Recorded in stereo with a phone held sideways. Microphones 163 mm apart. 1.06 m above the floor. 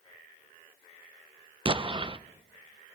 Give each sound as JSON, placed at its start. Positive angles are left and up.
{"t": 1.6, "sound": "an explosion", "side_deg": -30, "distance_m": 0.5}